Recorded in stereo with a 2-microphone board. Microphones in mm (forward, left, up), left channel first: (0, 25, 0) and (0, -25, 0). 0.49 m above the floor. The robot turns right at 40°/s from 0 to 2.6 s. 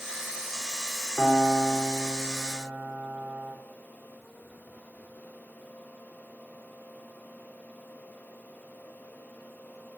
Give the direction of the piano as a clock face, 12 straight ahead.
6 o'clock.